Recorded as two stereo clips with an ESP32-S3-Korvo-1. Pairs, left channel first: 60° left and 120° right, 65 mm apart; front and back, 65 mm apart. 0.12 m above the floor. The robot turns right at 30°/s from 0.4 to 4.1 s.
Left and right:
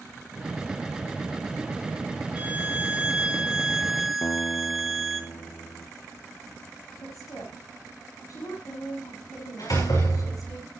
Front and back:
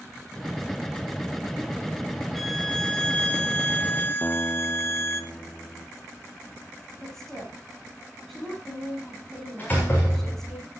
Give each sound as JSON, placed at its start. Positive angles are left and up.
{"t": 2.4, "sound": "a violin", "azimuth_deg": -85, "distance_m": 1.7}
{"t": 4.2, "sound": "a guitar", "azimuth_deg": 65, "distance_m": 1.1}
{"t": 7.0, "sound": "a woman speaking", "azimuth_deg": 85, "distance_m": 8.0}
{"t": 9.6, "sound": "a door slam", "azimuth_deg": 60, "distance_m": 8.0}